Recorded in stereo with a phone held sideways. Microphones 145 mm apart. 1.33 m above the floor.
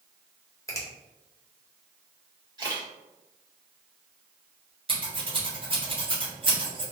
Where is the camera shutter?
30° right (ahead or behind), 1.6 m.